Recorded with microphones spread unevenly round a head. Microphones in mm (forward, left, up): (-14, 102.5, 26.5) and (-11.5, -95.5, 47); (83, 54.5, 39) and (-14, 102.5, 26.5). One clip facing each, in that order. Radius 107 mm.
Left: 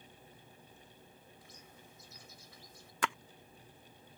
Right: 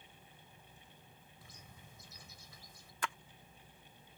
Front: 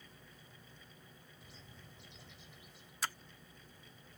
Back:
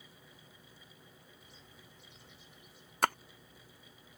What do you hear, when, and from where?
1.4 s a bird: 70° right
3.0 s a splash: 115° left